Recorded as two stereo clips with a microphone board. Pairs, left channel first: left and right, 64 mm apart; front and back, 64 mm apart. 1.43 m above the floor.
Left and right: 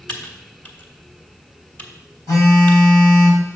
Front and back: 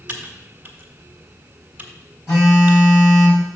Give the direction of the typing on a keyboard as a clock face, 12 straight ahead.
8 o'clock.